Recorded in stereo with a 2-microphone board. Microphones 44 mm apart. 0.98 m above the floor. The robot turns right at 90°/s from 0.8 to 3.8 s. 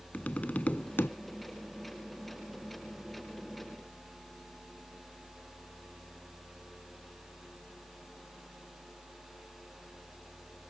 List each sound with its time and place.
0.1 s tapping: 35° left (ahead or behind); by 1.1 s 65° left (ahead or behind)